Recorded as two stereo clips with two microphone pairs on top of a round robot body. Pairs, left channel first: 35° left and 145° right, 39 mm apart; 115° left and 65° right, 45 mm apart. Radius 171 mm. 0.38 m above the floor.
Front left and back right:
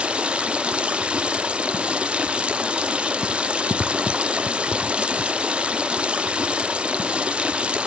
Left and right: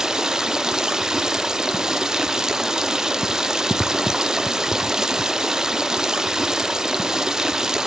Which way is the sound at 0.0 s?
120° right.